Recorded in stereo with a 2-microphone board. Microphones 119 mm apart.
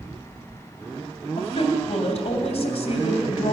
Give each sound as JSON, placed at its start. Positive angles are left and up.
{"t": 1.4, "sound": "a woman speaking", "side_deg": 60, "distance_m": 2.5}